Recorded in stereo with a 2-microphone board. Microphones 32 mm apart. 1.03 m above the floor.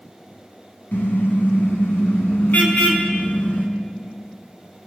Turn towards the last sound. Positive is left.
turn(degrees=50)  # may be behind; listen again after turning